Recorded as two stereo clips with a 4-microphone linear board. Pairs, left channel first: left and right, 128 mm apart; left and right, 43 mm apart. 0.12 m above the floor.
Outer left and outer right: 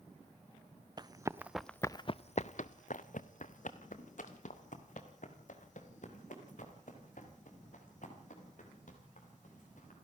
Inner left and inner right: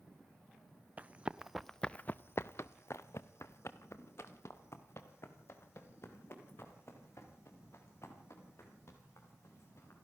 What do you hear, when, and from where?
1.0 s running footsteps: 35° right (ahead or behind), 1.1 m; by 9.9 s 75° left (ahead or behind), 8.5 m